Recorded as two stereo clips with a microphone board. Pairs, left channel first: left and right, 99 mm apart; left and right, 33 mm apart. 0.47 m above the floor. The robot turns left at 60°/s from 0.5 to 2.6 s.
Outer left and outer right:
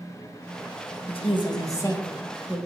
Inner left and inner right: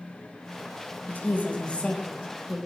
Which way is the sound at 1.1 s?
75° left.